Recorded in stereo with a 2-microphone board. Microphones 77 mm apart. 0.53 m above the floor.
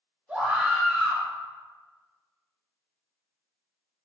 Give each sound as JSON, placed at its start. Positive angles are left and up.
{"t": 0.3, "sound": "a scream", "side_deg": -20, "distance_m": 1.0}